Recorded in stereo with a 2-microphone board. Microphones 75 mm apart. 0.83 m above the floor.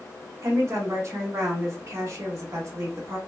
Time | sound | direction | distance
0.4 | a woman speaking | 45° right (ahead or behind) | 1.5 m